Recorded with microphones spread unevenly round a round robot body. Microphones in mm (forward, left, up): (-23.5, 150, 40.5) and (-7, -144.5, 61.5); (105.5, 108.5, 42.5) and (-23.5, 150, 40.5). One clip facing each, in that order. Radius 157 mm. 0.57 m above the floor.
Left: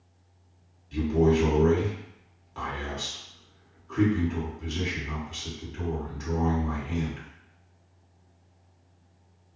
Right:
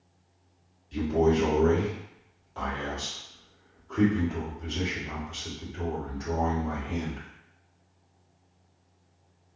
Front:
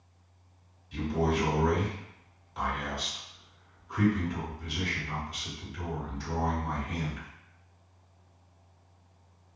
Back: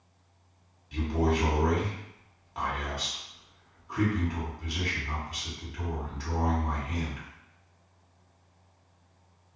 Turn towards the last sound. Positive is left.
turn(degrees=165)